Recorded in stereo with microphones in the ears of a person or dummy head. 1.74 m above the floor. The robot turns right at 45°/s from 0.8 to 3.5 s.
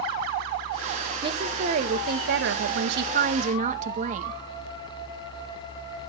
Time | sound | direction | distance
1.2 | a woman speaking | 150° right | 1.6 m